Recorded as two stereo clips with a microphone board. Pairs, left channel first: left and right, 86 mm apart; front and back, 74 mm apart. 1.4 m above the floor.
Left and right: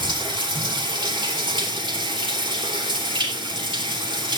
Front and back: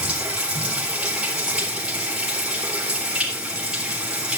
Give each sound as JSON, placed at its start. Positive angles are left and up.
{"t": 0.0, "sound": "running water", "azimuth_deg": -105, "distance_m": 3.0}